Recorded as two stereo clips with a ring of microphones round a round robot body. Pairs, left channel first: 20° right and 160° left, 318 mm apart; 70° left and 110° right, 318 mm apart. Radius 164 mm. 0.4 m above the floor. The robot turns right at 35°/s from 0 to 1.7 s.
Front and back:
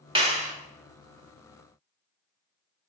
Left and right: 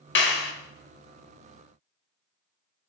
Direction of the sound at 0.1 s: 95° left.